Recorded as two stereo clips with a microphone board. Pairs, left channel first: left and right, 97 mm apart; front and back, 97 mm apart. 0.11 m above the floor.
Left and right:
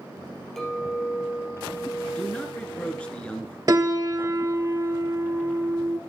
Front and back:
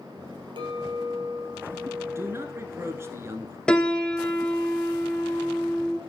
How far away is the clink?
About 2 m.